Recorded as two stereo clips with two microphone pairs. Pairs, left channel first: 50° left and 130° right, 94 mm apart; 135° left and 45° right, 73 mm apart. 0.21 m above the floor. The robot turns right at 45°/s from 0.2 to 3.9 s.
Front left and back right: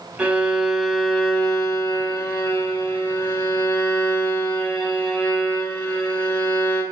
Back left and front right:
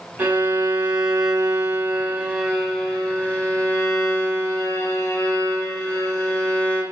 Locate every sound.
0.2 s a violin: 70° right, 1.7 m; by 6.8 s 95° left, 1.7 m